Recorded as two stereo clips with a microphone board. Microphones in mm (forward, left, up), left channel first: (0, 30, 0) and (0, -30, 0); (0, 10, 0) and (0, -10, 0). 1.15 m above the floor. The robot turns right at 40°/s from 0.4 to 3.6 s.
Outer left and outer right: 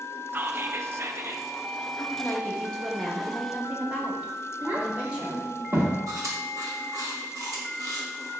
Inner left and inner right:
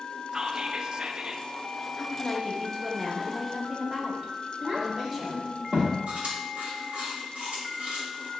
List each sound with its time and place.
0.3 s whispering: 130° right, 0.6 m; by 1.5 s 85° right, 0.6 m
2.0 s a woman speaking: 135° left, 1.7 m; by 5.5 s 160° right, 1.7 m
4.6 s a child speaking: 40° right (ahead or behind), 1.7 m
6.1 s chewing: 70° right (ahead or behind), 2 m